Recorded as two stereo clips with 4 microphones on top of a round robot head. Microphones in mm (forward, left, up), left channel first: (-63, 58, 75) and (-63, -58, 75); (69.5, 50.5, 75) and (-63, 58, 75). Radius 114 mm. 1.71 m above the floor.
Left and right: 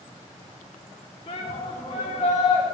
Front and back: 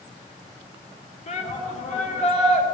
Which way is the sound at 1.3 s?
30° left.